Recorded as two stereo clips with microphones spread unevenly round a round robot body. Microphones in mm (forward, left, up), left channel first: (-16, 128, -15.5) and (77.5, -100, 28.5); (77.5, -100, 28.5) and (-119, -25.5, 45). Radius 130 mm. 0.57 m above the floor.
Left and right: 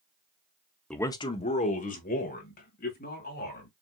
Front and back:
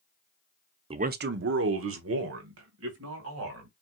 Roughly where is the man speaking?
Behind.